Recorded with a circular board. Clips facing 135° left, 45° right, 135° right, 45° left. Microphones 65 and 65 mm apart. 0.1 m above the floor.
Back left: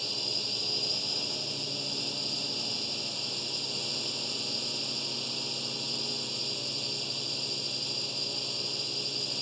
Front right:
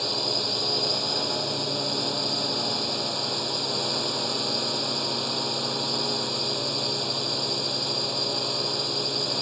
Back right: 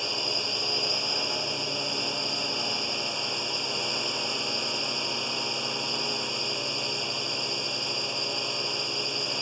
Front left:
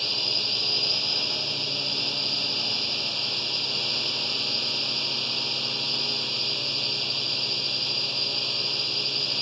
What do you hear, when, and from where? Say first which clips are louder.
0.0 s a drone: front right 10 dB, back right 2 dB; 65° right